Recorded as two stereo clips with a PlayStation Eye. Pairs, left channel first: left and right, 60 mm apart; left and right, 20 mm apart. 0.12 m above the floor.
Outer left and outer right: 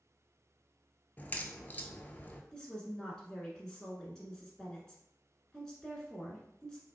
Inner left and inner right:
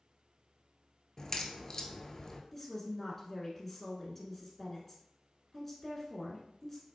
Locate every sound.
1.2 s a crack: 30° left (ahead or behind), 0.5 m
2.5 s a woman speaking: 10° left (ahead or behind), 1.1 m